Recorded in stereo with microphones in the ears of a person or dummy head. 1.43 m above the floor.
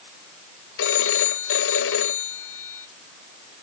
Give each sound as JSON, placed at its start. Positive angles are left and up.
{"t": 0.8, "sound": "a phone ringing", "side_deg": 85}